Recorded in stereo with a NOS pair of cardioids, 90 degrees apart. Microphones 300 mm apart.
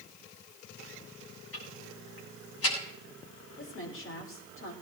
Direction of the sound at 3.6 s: 45° left.